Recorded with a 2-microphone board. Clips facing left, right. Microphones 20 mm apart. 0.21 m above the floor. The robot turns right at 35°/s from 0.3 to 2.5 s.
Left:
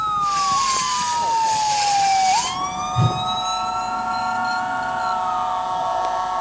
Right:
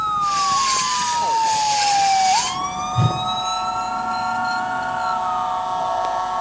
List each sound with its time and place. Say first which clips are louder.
3.0 s a whoosh: even; 15° right (ahead or behind), 1.7 m